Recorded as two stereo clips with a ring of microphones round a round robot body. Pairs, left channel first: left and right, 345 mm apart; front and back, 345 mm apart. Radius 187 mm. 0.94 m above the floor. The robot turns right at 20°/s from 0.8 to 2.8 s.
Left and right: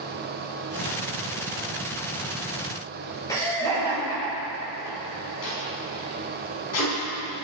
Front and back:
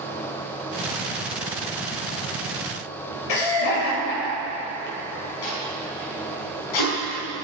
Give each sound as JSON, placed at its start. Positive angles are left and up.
{"t": 3.3, "sound": "laughter", "azimuth_deg": 10, "distance_m": 4.0}
{"t": 5.4, "sound": "tape being pulled", "azimuth_deg": 35, "distance_m": 5.5}